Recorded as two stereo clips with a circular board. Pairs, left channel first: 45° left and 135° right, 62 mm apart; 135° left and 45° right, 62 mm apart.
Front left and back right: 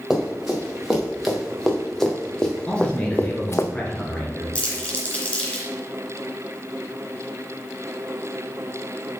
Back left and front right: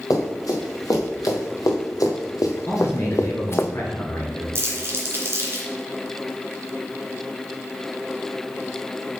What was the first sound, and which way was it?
Running footsteps, 140° left.